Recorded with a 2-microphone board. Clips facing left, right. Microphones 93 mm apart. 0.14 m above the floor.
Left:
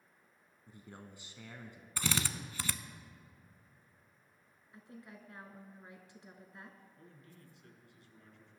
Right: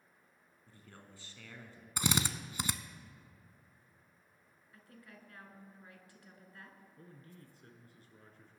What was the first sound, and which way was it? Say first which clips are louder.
A man speaking: left 5 dB; 20° left (ahead or behind).